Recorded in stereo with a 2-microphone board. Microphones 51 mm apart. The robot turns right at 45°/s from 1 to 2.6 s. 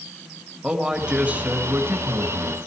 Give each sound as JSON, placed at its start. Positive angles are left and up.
{"t": 0.6, "sound": "a man speaking", "azimuth_deg": -160, "distance_m": 1.9}